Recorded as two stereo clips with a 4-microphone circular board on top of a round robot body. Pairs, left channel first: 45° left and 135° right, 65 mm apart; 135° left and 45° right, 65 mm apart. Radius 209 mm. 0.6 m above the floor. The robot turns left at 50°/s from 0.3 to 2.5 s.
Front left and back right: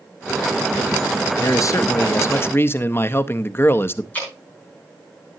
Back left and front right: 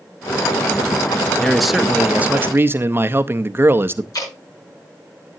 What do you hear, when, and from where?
1.4 s a man speaking: 55° left, 0.9 m; by 4.0 s straight ahead, 0.9 m
4.1 s dripping: 110° left, 6.5 m